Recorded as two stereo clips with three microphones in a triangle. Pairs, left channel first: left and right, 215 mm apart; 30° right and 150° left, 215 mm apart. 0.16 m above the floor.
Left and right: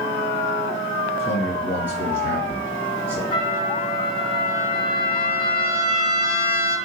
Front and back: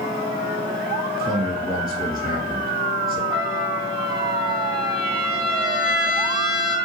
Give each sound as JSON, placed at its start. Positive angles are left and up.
{"t": 1.2, "sound": "a man speaking", "azimuth_deg": 100, "distance_m": 2.0}
{"t": 3.3, "sound": "a trumpet", "azimuth_deg": 75, "distance_m": 1.6}